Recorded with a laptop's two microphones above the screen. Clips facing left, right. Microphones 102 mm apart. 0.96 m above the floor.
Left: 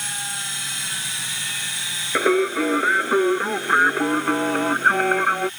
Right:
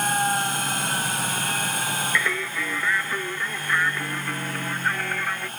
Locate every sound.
0.0 s a machine running: 50° right (ahead or behind)
2.1 s singing: 50° left (ahead or behind)